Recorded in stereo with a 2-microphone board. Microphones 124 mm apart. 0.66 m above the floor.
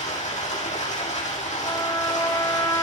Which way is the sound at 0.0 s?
85° left.